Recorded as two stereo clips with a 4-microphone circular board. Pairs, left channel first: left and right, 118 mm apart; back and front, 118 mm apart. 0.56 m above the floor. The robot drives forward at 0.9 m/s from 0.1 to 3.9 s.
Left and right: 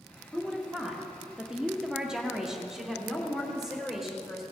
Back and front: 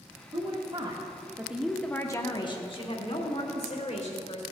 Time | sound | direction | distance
0.3 | a woman speaking | 5° right | 1.5 m